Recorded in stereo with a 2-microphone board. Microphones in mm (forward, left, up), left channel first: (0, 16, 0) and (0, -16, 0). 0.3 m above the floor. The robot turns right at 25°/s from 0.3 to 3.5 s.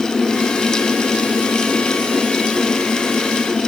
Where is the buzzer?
No buzzer in this recording.